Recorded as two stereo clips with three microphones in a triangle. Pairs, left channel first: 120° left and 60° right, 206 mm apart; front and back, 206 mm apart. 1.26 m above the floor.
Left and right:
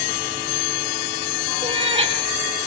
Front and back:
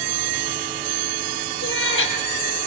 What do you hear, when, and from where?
1.6 s a cat meowing: 5° left, 4.5 m